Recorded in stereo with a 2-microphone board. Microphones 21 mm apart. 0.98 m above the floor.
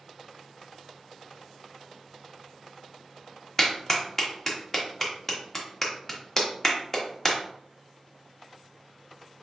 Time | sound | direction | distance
3.6 | a clap | 15° left (ahead or behind) | 0.9 m